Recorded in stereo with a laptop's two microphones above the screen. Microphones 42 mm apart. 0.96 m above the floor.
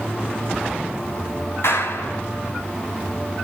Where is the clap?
75° left (ahead or behind), 5 m.